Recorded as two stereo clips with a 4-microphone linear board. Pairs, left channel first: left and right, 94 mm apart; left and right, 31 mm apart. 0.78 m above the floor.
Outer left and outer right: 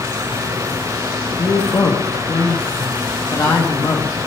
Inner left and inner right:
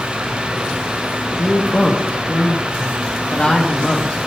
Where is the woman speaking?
40° left (ahead or behind), 1.1 m.